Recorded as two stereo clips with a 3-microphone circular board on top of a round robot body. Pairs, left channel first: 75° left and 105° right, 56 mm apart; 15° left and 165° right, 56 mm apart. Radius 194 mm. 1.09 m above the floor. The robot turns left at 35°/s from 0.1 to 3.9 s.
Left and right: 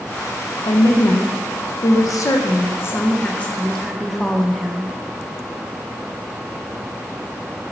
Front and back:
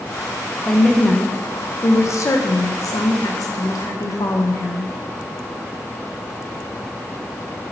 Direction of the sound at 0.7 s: 100° left.